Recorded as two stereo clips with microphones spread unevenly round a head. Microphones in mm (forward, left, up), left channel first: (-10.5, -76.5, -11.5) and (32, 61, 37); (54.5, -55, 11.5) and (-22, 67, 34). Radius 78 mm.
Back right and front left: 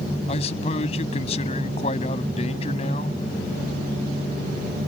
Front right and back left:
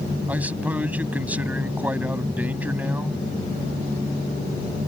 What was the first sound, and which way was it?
A man speaking, 160° right.